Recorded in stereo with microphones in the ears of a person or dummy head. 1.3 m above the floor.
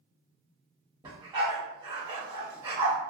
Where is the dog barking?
25° right (ahead or behind), 1.9 m.